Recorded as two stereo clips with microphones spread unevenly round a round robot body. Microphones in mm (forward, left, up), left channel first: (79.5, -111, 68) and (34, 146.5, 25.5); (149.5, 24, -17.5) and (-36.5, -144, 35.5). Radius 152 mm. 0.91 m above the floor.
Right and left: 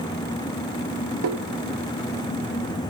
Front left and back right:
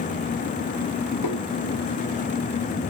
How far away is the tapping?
About 1.6 m.